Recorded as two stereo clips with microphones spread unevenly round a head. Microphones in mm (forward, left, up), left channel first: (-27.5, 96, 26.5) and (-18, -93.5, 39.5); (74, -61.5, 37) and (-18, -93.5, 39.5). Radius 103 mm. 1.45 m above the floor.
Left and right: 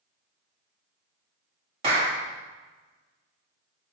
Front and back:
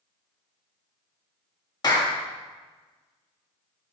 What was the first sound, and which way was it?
A clap, 25° right.